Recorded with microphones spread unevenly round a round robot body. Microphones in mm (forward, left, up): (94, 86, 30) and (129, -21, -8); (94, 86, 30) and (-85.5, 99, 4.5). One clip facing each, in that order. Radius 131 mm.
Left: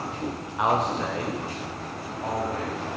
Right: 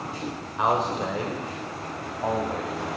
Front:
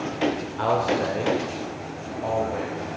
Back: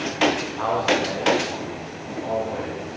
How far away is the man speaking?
About 1.3 m.